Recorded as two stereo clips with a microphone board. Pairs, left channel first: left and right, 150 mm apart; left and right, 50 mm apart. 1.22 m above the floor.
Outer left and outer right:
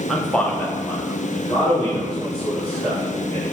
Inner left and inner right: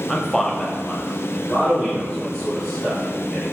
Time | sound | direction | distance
0.1 | a man speaking | centre (ahead or behind) | 0.8 m